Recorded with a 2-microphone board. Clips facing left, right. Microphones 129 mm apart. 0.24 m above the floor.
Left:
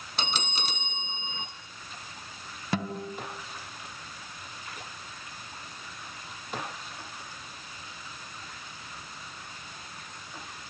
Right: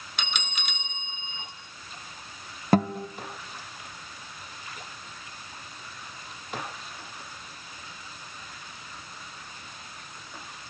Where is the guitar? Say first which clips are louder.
Right 9 dB; 45° right (ahead or behind), 1.6 m.